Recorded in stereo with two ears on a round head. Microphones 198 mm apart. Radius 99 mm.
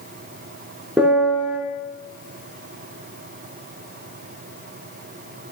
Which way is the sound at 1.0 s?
5° right (ahead or behind).